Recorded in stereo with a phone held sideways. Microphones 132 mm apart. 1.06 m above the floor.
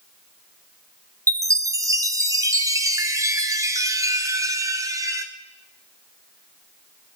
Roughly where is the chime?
Right.